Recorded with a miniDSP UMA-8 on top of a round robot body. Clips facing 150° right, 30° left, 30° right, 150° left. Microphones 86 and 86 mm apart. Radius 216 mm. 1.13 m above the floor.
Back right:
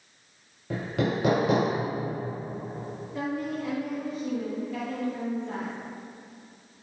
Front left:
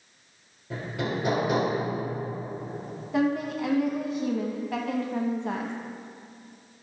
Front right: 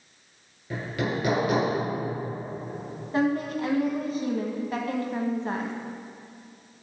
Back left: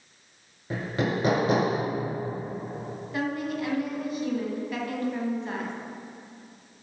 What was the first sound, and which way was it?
Hammering, 155° right.